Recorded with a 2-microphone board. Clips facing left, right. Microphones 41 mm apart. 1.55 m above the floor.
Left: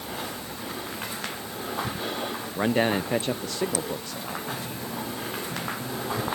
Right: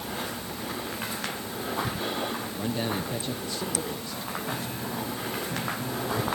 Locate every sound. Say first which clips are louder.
2.6 s a man speaking: left 9 dB; 60° left (ahead or behind)
4.5 s a piano: right 1 dB; 10° right (ahead or behind)